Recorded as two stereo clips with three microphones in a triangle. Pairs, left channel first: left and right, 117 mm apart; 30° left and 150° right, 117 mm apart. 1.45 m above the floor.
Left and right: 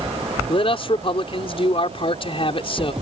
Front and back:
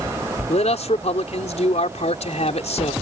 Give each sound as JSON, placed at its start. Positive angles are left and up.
{"t": 0.5, "sound": "a man speaking", "azimuth_deg": 50}